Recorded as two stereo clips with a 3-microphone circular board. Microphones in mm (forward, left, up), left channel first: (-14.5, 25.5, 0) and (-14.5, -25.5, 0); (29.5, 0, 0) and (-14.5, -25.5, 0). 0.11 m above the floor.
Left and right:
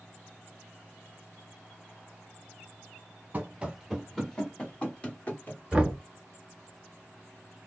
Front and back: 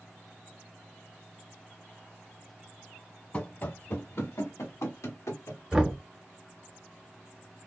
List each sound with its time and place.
3.3 s running footsteps: 30° right, 0.8 m; by 5.9 s 35° left, 2 m
5.7 s knocking: 110° right, 0.8 m